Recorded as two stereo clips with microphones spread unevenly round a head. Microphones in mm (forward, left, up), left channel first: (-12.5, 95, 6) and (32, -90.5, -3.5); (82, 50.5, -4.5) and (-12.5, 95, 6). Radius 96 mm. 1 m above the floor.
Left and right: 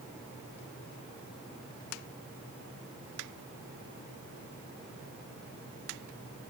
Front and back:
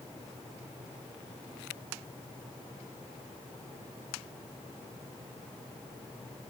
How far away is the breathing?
No breathing in this recording.